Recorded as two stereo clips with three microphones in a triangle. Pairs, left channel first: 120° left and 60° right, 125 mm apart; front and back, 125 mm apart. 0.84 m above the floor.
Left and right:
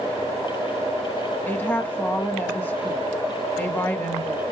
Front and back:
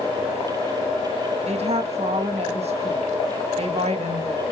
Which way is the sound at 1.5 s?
165° right.